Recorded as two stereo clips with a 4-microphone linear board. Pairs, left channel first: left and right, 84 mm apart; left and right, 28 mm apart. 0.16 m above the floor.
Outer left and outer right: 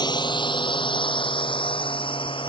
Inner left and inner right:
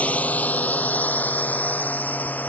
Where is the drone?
60° left (ahead or behind); by 2.5 s 80° left.